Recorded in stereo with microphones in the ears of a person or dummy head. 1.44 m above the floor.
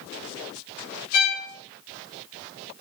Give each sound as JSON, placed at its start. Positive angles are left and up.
{"t": 1.1, "sound": "a violin", "side_deg": 65, "distance_m": 2.0}